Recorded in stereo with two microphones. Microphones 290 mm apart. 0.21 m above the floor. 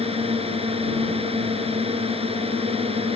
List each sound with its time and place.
0.0 s a drone: 20° right (ahead or behind)